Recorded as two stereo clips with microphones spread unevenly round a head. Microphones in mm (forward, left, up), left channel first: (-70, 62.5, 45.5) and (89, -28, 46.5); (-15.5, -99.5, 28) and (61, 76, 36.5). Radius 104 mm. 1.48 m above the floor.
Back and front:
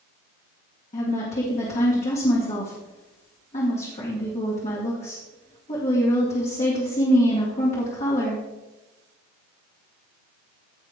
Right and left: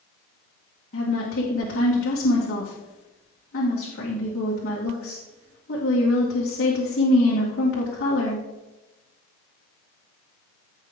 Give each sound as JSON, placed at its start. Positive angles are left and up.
{"t": 0.9, "sound": "a woman speaking", "azimuth_deg": -155, "distance_m": 2.0}